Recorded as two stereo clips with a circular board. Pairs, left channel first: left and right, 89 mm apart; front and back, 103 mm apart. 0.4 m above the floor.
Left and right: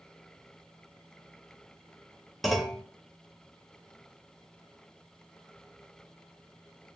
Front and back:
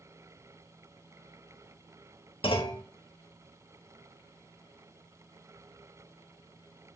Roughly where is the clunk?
Ahead.